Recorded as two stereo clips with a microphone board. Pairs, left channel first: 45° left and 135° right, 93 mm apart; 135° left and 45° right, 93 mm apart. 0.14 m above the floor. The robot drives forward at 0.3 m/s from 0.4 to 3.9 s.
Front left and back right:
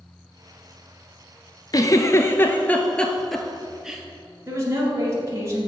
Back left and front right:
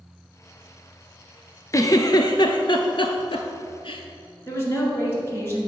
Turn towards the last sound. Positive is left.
turn(degrees=-175)